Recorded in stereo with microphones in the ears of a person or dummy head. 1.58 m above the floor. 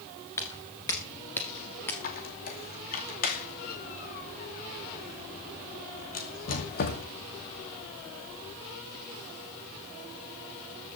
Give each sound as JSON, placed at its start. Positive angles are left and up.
{"t": 0.4, "sound": "footsteps", "side_deg": 10, "distance_m": 1.7}
{"t": 2.0, "sound": "a squeak", "side_deg": 45, "distance_m": 2.5}